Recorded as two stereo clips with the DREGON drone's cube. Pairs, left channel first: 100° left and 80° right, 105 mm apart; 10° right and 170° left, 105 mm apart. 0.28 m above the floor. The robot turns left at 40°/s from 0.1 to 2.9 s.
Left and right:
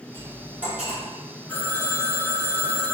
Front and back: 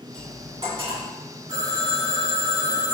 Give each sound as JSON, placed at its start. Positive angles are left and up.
{"t": 0.1, "sound": "cutlery clinking", "azimuth_deg": -135, "distance_m": 1.9}
{"t": 1.5, "sound": "a phone ringing", "azimuth_deg": 180, "distance_m": 1.9}